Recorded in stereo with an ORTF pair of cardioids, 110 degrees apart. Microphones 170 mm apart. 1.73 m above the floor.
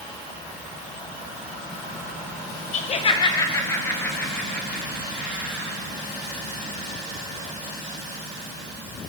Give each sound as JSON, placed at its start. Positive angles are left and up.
{"t": 2.7, "sound": "laughter", "azimuth_deg": 45, "distance_m": 1.7}